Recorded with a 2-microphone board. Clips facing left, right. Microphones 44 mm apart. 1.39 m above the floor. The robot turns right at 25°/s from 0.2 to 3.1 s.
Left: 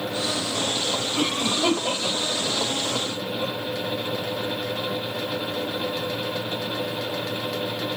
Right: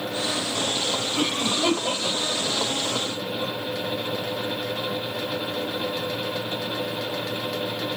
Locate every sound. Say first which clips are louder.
1.2 s a cough: left 1 dB; 5° left (ahead or behind), 4.5 m; by 3.5 s 55° left (ahead or behind), 4.5 m